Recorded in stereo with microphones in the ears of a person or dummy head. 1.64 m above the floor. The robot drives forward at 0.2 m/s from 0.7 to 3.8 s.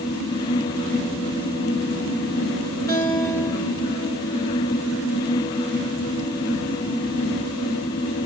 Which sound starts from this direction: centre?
A guitar, at 2.9 s.